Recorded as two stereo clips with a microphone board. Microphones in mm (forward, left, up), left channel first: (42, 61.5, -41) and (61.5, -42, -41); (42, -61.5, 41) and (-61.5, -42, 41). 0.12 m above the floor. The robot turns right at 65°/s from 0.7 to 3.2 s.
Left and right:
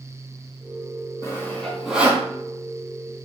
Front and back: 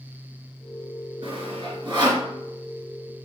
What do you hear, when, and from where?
1.2 s sawing: 150° left, 1.2 m; by 2.3 s 140° right, 1.2 m